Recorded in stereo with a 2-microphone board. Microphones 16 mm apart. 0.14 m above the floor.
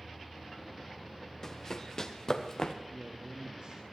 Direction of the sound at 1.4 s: 25° left (ahead or behind).